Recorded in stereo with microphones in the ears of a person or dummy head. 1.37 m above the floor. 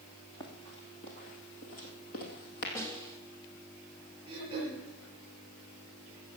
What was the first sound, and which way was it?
Running footsteps, 25° left (ahead or behind).